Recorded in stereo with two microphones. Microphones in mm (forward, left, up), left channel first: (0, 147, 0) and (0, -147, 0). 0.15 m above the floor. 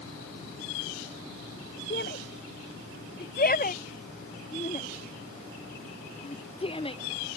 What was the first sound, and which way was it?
A shout, 40° left (ahead or behind).